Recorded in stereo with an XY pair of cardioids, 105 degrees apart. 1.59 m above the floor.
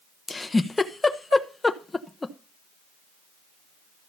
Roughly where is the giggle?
Ahead.